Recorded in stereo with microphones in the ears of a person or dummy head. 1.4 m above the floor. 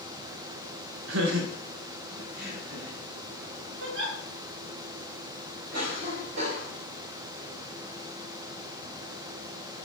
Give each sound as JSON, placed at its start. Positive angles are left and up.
{"t": 1.1, "sound": "laughter", "side_deg": -75, "distance_m": 1.3}
{"t": 3.8, "sound": "a giggle", "side_deg": -75, "distance_m": 2.0}
{"t": 5.7, "sound": "a cough", "side_deg": -65, "distance_m": 3.5}